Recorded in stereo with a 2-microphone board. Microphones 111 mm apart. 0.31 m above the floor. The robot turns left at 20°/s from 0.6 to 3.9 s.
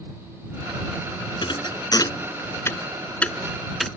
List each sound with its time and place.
1.4 s a thud: 50° left (ahead or behind); by 3.9 s centre (ahead or behind)